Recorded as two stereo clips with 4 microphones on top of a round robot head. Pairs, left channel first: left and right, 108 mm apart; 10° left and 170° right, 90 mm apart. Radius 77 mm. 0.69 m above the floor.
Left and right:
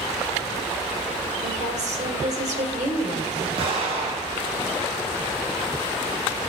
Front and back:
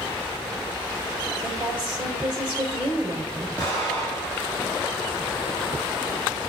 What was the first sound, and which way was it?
A woman speaking, 85° right.